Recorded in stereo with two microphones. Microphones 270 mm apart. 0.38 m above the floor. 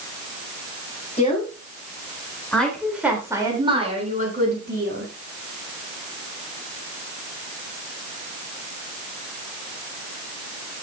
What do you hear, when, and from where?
1.2 s a woman speaking: 25° left (ahead or behind), 5.5 m; by 5.1 s 45° right (ahead or behind), 4.5 m